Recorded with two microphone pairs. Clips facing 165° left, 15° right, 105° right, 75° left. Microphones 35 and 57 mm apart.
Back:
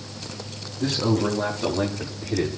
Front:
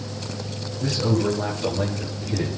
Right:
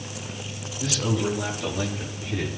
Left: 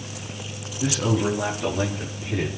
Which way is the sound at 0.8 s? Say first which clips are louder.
Even, left 3 dB; 145° left.